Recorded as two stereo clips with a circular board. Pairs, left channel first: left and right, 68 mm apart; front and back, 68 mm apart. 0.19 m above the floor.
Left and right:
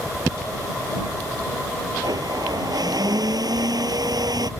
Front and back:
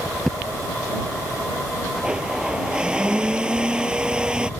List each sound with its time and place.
2.0 s a blender: 105° right